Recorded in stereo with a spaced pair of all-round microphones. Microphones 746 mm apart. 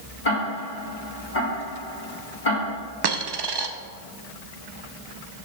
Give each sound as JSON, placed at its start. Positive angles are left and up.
{"t": 0.2, "sound": "ticking", "side_deg": 80, "distance_m": 2.0}
{"t": 3.0, "sound": "a dropped coin", "side_deg": -40, "distance_m": 0.5}